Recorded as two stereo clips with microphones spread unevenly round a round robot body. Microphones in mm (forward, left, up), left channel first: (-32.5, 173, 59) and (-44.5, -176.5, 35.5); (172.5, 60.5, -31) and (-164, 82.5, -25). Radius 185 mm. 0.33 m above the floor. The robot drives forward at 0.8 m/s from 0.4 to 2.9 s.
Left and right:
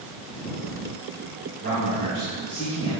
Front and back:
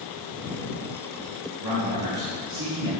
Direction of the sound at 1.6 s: 150° right.